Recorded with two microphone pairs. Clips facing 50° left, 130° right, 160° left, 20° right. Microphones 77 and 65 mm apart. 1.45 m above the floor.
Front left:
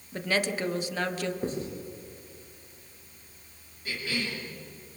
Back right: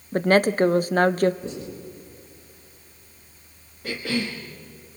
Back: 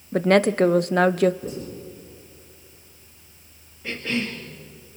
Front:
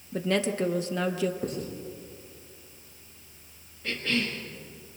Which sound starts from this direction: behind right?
A cough, at 3.8 s.